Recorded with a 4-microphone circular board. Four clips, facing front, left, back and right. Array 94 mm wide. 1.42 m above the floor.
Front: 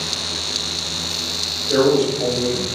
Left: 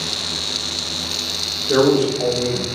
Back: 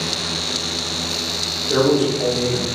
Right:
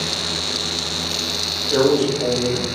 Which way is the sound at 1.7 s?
85° left.